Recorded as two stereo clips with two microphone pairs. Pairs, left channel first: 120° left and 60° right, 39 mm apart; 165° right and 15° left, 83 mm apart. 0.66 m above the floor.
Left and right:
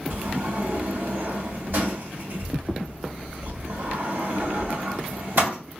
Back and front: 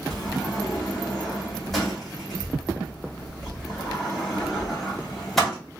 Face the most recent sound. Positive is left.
turn(degrees=-75)